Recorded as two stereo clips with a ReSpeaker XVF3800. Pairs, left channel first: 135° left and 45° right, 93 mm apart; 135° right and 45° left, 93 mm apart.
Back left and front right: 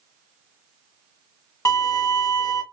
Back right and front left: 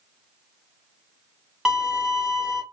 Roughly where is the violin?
Behind left.